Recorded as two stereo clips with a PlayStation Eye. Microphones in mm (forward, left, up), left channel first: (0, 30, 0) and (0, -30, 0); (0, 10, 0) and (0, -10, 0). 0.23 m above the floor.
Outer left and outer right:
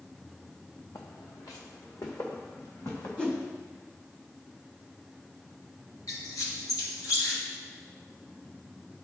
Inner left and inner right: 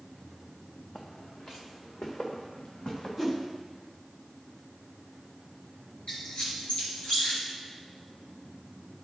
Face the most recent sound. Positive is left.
turn(degrees=70)  # may be behind; listen again after turning